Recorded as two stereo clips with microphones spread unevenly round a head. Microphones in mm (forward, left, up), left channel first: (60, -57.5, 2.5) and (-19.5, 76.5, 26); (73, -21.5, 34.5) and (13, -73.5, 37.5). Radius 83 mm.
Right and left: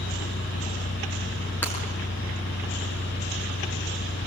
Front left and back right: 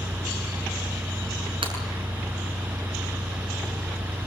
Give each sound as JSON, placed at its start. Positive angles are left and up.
{"t": 0.0, "sound": "a fan", "azimuth_deg": -70, "distance_m": 1.0}
{"t": 1.6, "sound": "breaking glass", "azimuth_deg": -140, "distance_m": 6.5}